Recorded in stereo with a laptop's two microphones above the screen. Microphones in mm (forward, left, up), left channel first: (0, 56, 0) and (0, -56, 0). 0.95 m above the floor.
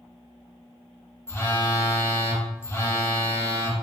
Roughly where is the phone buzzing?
Left.